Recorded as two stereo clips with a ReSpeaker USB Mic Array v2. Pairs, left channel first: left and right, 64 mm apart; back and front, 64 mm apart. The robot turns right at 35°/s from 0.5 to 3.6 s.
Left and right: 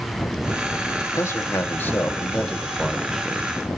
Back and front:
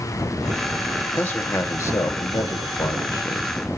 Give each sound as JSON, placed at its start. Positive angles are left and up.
{"t": 1.2, "sound": "a man speaking", "azimuth_deg": 120, "distance_m": 0.9}